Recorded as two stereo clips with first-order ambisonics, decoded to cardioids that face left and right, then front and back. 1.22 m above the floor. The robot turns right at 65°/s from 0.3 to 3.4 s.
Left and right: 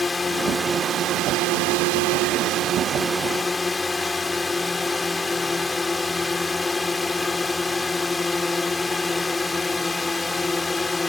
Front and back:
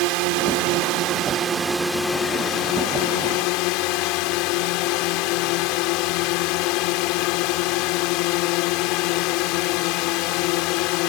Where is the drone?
170° left; by 11.1 s 10° left.